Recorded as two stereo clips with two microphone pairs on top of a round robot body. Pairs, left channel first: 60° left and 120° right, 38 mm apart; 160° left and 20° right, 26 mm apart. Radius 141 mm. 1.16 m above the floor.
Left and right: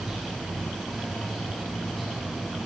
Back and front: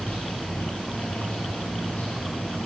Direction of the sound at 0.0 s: 150° left.